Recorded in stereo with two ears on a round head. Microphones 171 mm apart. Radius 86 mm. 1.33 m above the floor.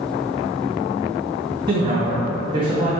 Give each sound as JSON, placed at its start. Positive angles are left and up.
{"t": 1.7, "sound": "a man speaking", "side_deg": -25, "distance_m": 0.6}